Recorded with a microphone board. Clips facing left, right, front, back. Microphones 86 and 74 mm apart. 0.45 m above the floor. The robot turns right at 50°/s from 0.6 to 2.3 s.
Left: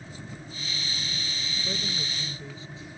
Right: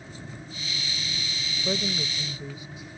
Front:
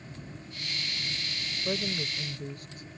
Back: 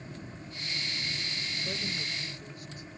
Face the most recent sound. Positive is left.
turn(degrees=-20)